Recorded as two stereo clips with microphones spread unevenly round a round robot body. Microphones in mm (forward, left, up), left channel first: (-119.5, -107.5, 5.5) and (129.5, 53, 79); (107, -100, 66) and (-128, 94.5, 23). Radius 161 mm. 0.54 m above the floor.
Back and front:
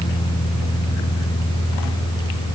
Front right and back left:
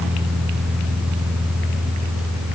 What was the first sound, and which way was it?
Only background noise.